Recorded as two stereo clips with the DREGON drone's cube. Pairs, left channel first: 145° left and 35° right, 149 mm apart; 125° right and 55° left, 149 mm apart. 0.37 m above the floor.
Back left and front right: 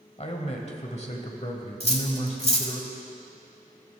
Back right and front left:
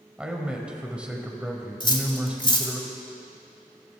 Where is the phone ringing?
No phone ringing in this recording.